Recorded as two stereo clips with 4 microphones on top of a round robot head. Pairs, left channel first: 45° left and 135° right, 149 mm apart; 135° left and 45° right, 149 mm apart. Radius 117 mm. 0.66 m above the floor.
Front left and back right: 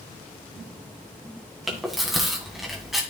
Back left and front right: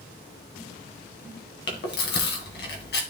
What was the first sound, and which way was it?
Chewing, 140° left.